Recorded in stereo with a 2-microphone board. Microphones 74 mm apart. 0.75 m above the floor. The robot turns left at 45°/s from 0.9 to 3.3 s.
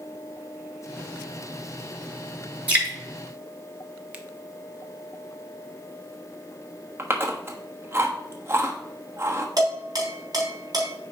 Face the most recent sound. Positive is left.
turn(degrees=-60)  # may be behind; listen again after turning